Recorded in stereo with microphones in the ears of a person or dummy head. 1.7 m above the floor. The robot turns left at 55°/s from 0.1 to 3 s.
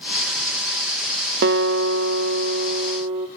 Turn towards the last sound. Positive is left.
turn(degrees=-155)